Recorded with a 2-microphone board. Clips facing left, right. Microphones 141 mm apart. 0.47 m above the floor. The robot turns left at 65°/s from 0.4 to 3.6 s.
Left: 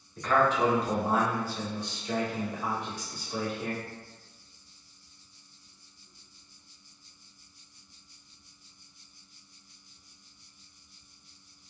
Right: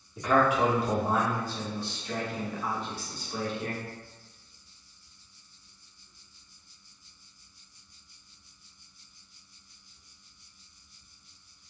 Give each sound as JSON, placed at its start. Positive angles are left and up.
{"t": 0.2, "sound": "a man speaking", "side_deg": -10, "distance_m": 1.0}